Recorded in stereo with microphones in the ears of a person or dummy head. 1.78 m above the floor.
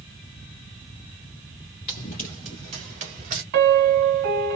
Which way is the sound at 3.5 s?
55° right (ahead or behind).